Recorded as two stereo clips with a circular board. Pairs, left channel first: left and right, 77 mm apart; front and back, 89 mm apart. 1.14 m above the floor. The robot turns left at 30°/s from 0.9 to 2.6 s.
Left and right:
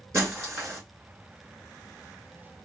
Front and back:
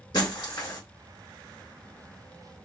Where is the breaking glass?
40° right, 2.0 m.